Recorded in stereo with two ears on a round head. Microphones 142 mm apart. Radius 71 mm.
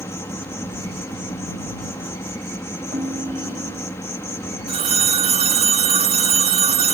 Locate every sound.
0.0 s an insect: 20° left (ahead or behind)
2.9 s a ringtone: 25° right (ahead or behind)
4.7 s a phone ringing: 40° right (ahead or behind)